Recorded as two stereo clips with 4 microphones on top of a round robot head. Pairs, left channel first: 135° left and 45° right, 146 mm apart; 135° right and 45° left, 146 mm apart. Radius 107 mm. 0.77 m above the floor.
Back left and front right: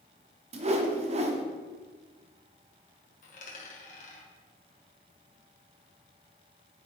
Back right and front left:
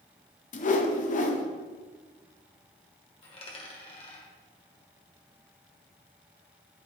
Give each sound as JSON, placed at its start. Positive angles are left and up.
{"t": 0.5, "sound": "a whoosh", "azimuth_deg": -95, "distance_m": 0.8}
{"t": 3.2, "sound": "a dropped coin", "azimuth_deg": 170, "distance_m": 1.6}